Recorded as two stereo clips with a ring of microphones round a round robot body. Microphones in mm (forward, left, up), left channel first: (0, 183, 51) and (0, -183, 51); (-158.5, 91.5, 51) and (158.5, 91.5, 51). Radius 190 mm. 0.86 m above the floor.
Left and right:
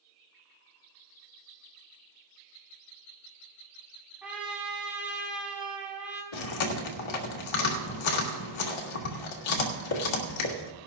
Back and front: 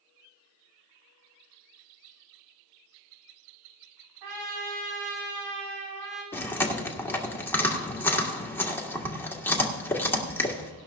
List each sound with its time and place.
4.2 s a trumpet: 5° right, 3.5 m
6.3 s chewing: 95° left, 1.6 m